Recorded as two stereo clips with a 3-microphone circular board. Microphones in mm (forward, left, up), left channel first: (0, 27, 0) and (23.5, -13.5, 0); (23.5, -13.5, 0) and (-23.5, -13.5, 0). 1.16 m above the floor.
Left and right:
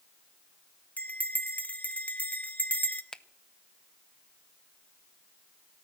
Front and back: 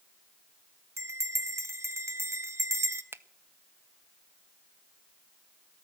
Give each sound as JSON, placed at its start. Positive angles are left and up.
{"t": 1.0, "sound": "a bell", "azimuth_deg": 175, "distance_m": 0.8}
{"t": 3.1, "sound": "a finger snap", "azimuth_deg": -170, "distance_m": 0.6}